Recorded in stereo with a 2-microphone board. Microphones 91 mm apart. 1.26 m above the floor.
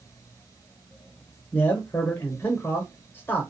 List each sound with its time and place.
1.5 s a man speaking: 25° left (ahead or behind), 0.7 m